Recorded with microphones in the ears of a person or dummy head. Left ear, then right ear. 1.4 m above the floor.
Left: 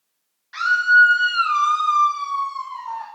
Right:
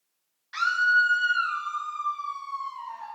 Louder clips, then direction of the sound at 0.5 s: Left 7 dB; 10° right (ahead or behind).